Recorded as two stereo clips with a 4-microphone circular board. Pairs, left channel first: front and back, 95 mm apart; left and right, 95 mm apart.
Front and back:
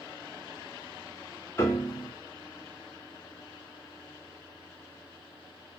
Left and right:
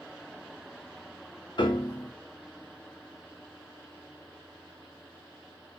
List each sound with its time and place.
1.6 s a piano: 60° left, 0.7 m